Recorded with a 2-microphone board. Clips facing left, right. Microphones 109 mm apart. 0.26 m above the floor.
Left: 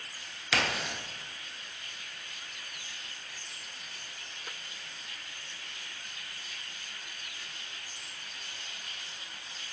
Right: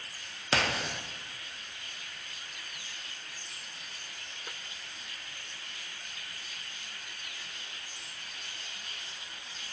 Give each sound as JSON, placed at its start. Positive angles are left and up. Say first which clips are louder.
{"t": 0.5, "sound": "a crack", "louder": "right 1 dB", "side_deg": -40, "distance_m": 0.5}